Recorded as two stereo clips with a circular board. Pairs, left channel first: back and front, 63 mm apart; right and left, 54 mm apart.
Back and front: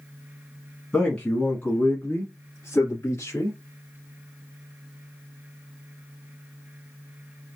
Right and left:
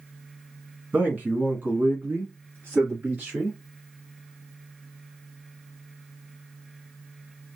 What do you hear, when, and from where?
0.9 s a man speaking: 120° left, 1.2 m; by 3.6 s 145° left, 2.5 m